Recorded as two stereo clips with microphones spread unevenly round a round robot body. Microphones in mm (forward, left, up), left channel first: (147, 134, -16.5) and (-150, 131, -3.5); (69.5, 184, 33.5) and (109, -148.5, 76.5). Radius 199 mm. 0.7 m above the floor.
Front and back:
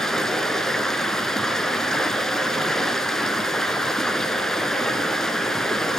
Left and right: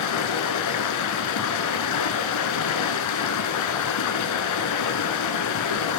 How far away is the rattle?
I don't hear a rattle.